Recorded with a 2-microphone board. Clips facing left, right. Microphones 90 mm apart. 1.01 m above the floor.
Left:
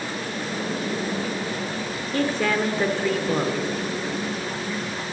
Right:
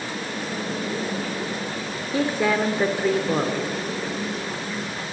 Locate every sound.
2.1 s a woman speaking: 10° right (ahead or behind), 2.5 m